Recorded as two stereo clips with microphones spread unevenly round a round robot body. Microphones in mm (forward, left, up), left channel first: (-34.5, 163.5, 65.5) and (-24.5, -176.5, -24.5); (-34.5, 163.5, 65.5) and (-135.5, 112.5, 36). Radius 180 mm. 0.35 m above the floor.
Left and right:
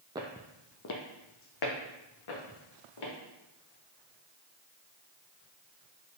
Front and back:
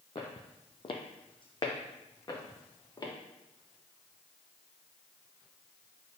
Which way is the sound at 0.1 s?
Straight ahead.